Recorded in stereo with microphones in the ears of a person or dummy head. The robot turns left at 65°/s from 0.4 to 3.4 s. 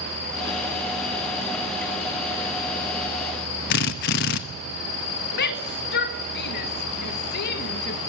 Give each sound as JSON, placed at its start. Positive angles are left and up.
{"t": 3.7, "sound": "a drill", "side_deg": 45, "distance_m": 0.9}
{"t": 5.3, "sound": "a shout", "side_deg": 50, "distance_m": 1.6}